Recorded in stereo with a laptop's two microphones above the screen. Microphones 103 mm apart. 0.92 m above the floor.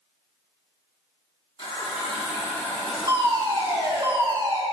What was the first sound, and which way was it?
A running tap, 65° left (ahead or behind).